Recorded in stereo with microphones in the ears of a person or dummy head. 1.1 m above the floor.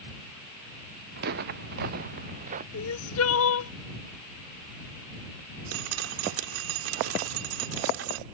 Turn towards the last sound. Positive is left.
turn(degrees=-80)